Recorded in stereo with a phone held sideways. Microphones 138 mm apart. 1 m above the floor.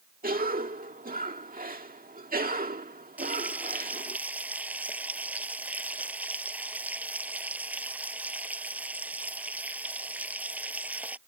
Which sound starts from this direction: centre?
Frying, at 3.2 s.